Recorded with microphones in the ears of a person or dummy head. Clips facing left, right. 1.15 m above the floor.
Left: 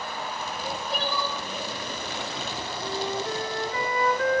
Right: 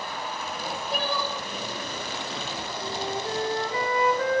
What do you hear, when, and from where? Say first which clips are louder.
0.5 s crying: right 1 dB; centre (ahead or behind), 5 m
2.8 s a flute: left 2 dB; 25° right (ahead or behind), 1.3 m